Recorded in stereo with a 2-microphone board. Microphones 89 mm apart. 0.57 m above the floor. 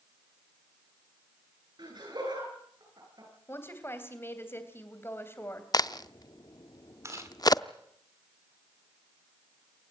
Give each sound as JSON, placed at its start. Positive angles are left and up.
{"t": 1.8, "sound": "laughter", "side_deg": -55, "distance_m": 10.0}
{"t": 3.5, "sound": "a woman speaking", "side_deg": 25, "distance_m": 3.0}
{"t": 5.7, "sound": "a crack", "side_deg": 45, "distance_m": 0.5}
{"t": 7.0, "sound": "chewing", "side_deg": -35, "distance_m": 2.0}